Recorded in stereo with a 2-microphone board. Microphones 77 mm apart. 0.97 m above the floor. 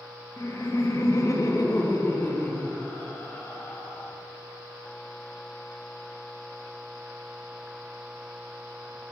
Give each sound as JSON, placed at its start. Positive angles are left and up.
{"t": 0.4, "sound": "laughter", "side_deg": 35, "distance_m": 0.7}